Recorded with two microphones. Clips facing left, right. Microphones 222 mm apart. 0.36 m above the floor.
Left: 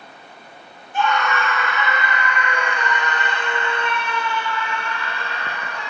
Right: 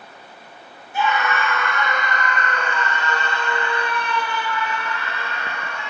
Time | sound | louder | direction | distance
0.9 | a scream | left 1 dB | 10° right (ahead or behind) | 4 m